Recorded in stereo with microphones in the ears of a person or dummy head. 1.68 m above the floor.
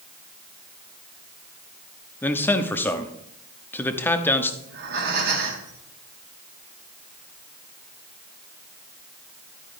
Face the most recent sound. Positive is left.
turn(degrees=-65)  # may be behind; listen again after turning